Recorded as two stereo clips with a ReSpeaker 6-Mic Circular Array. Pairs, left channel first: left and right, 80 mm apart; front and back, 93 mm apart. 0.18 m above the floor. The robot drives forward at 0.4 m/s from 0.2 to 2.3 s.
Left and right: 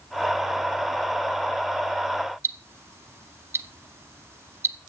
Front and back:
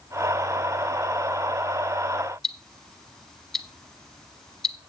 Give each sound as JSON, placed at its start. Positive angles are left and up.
{"t": 2.4, "sound": "ticking", "azimuth_deg": -85, "distance_m": 0.8}